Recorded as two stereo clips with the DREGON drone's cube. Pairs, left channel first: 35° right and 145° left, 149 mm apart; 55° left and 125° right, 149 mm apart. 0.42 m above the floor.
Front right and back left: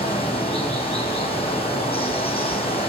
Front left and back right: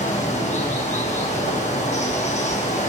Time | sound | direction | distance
0.0 | running water | 15° left | 8 m